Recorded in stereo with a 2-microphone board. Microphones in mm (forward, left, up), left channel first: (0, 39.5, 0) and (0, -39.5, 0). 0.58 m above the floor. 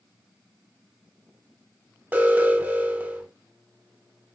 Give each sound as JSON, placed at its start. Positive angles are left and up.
{"t": 2.1, "sound": "an alarm", "side_deg": -20, "distance_m": 3.5}